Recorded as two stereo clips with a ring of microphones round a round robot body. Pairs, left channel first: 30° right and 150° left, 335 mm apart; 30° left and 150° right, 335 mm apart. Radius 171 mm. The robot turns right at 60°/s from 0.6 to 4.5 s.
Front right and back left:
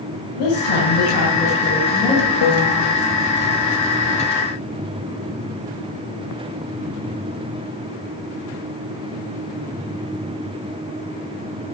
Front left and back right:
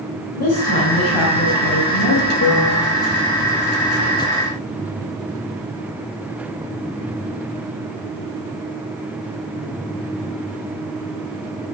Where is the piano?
20° right, 2.5 m; by 2.9 s 5° left, 2.5 m.